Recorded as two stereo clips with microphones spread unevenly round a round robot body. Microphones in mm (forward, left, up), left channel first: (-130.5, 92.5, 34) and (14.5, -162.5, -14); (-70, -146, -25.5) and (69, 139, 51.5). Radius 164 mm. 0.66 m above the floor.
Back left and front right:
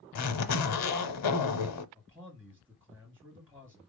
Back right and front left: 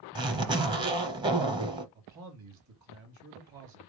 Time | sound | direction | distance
0.1 | a zipper | 135° left | 0.8 m
1.9 | a man speaking | 15° left | 1.6 m